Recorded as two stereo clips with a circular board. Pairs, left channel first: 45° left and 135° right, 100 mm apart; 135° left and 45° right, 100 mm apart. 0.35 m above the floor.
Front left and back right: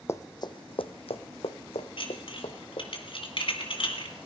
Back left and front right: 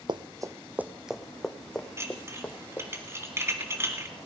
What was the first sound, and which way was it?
Running footsteps, 15° right.